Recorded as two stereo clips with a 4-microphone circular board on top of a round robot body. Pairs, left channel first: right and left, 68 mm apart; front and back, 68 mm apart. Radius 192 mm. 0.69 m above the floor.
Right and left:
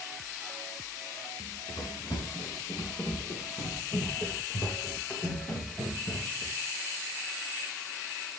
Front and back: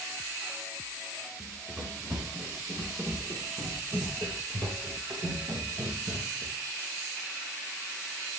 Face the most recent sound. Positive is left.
turn(degrees=-155)